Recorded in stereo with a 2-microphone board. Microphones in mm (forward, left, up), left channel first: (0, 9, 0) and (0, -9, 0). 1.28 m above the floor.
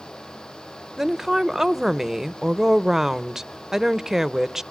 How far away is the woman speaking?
About 0.6 m.